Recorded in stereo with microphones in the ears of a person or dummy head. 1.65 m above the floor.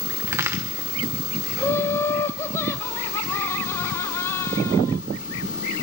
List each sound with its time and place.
0.3 s a crack: 20° right (ahead or behind), 1.2 m
1.6 s laughter: 15° left (ahead or behind), 0.8 m